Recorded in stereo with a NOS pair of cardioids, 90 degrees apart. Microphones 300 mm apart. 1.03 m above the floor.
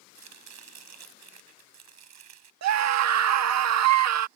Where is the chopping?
65° right.